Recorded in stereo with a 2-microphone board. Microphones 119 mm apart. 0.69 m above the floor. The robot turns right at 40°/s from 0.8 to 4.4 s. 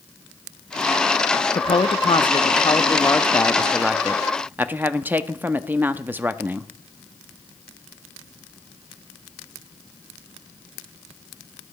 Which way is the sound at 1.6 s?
85° left.